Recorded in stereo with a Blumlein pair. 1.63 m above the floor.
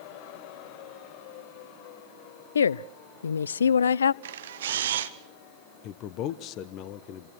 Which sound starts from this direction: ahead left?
A man speaking, at 5.8 s.